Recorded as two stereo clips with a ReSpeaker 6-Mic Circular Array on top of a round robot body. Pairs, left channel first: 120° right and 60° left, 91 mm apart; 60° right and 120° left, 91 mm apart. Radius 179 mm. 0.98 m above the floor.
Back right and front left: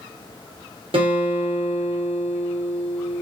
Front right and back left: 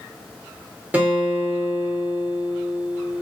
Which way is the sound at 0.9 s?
45° left.